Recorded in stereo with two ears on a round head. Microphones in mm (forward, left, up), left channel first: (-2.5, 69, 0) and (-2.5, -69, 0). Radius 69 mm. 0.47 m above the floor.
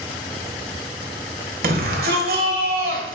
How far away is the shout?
About 1.7 m.